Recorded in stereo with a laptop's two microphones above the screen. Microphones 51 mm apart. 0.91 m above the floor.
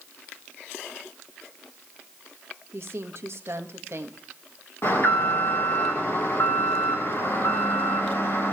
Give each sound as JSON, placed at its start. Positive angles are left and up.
{"t": 2.7, "sound": "a woman speaking", "side_deg": -55, "distance_m": 1.4}
{"t": 4.8, "sound": "an alarm", "side_deg": 50, "distance_m": 3.0}